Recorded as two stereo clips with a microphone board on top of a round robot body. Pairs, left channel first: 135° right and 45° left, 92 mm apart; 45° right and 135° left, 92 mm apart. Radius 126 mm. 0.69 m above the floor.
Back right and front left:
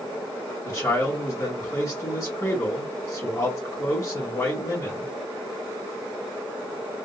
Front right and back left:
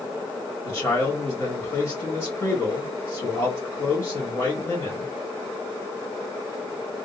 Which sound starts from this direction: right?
A man speaking, at 0.7 s.